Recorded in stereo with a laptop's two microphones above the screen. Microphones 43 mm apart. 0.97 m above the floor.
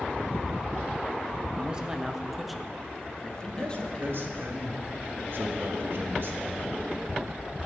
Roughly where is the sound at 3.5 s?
Right.